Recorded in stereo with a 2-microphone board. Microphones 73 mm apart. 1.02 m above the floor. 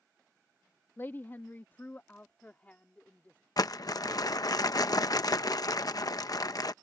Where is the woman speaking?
35° left (ahead or behind); by 3.4 s 15° left (ahead or behind).